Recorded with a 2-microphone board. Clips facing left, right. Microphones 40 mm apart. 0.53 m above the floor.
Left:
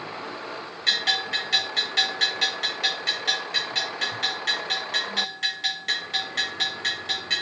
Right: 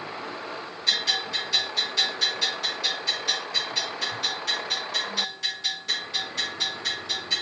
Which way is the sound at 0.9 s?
65° left (ahead or behind).